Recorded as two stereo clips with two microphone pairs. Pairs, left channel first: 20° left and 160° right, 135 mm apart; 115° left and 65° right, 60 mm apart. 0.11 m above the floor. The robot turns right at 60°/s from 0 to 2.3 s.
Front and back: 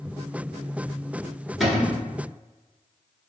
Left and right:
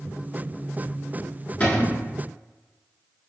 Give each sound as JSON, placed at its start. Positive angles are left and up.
{"t": 1.6, "sound": "a cupboard door", "azimuth_deg": 110, "distance_m": 0.9}